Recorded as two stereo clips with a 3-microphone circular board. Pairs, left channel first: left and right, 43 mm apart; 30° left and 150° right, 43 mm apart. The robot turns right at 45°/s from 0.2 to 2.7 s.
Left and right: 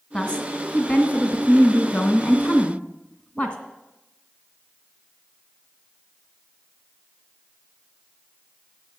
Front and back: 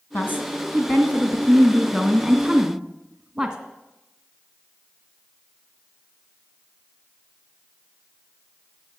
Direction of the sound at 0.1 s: 25° left.